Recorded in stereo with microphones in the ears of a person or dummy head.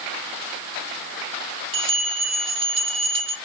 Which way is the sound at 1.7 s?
40° right (ahead or behind).